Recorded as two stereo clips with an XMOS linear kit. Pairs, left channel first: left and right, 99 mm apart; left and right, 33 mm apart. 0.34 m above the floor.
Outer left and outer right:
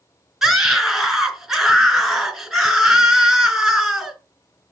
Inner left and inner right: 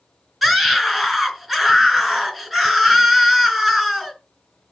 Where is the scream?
5° right (ahead or behind), 3.5 m.